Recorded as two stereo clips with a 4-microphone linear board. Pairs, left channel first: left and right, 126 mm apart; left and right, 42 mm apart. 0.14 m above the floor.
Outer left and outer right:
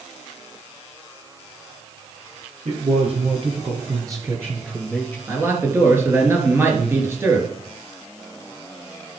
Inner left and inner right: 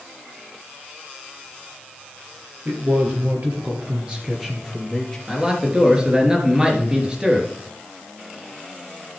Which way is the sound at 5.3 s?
20° right (ahead or behind).